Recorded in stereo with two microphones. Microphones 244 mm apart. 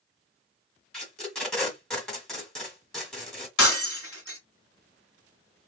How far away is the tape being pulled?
About 1.1 m.